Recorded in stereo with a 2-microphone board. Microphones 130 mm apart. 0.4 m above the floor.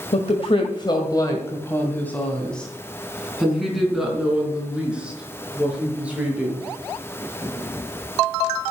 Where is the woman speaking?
55° left (ahead or behind), 1.6 m; by 6.6 s 10° right (ahead or behind), 6.5 m.